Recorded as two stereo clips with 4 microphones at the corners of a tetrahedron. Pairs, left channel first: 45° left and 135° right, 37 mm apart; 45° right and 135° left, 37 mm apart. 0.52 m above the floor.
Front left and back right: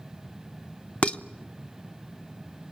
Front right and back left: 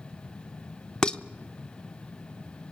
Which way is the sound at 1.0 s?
10° left.